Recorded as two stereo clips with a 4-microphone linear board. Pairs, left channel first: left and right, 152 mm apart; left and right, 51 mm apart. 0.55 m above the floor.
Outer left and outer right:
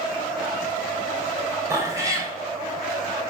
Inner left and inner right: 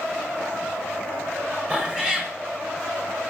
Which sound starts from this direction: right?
A cat meowing, at 1.7 s.